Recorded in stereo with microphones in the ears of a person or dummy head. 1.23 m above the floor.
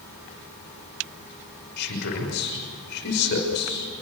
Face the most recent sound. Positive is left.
turn(degrees=55)  # may be behind; listen again after turning